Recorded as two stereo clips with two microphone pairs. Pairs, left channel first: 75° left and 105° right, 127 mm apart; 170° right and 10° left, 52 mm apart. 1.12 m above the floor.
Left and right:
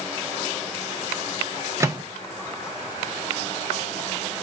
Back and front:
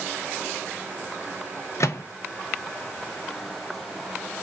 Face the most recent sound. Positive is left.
turn(degrees=-170)